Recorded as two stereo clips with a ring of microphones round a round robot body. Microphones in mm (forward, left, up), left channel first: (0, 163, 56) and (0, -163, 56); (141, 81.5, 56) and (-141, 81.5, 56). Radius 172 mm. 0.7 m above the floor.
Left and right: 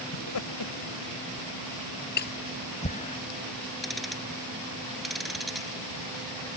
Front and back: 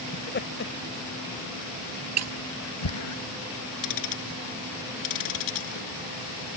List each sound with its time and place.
0.1 s laughter: 55° left; by 3.2 s 15° left
2.2 s breaking glass: 150° left
3.8 s ticking: straight ahead